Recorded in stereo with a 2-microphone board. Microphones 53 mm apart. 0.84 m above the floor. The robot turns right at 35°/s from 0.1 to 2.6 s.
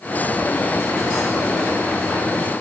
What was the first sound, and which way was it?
Only background noise.